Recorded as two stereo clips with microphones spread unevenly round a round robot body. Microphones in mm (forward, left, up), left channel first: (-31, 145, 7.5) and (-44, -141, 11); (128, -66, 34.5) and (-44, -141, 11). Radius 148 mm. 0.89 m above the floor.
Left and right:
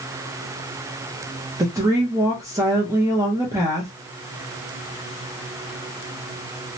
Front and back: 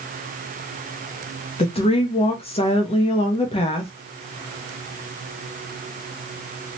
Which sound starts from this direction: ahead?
A woman speaking, at 1.6 s.